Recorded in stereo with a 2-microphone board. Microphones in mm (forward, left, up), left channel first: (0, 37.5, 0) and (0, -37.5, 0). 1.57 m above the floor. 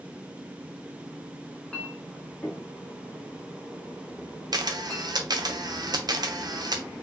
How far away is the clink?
About 1.3 m.